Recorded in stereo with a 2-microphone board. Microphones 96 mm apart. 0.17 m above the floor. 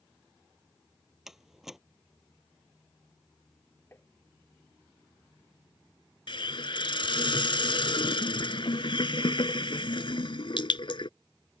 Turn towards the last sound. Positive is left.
turn(degrees=60)  # may be behind; listen again after turning